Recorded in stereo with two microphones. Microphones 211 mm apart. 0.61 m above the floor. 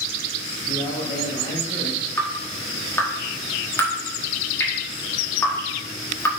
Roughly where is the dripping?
Centre.